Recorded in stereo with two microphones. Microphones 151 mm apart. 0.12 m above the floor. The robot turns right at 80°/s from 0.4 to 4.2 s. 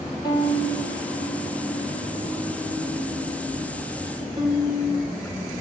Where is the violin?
25° left (ahead or behind), 5 m; by 5.3 s 30° right (ahead or behind), 5 m.